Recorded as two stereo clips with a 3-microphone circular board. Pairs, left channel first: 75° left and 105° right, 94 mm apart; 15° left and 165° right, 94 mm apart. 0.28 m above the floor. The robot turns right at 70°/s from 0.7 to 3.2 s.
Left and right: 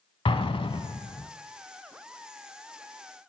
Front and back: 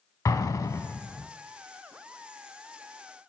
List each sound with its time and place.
0.2 s an explosion: 65° left, 0.6 m; by 1.3 s 110° left, 0.6 m